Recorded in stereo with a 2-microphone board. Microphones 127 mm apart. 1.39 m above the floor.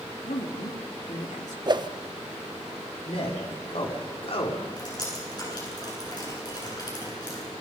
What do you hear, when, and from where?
0.2 s a woman speaking: 80° left, 3.5 m
1.7 s a whoosh: 40° right (ahead or behind), 0.7 m
3.0 s a man speaking: 55° left (ahead or behind), 5 m
4.8 s dripping: 35° left (ahead or behind), 9.5 m